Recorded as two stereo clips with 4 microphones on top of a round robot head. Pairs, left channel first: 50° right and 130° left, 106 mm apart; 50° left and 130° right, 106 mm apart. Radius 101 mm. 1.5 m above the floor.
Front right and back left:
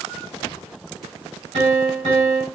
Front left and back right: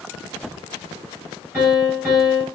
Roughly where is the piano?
Behind left.